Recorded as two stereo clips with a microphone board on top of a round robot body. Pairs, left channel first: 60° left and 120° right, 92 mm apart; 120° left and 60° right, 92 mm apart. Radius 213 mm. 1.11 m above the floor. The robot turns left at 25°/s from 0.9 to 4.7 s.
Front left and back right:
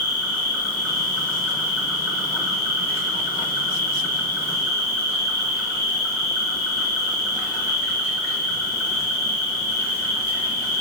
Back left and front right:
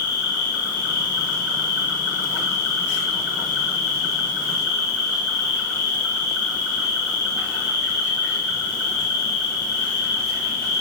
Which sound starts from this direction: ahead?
An insect, at 0.0 s.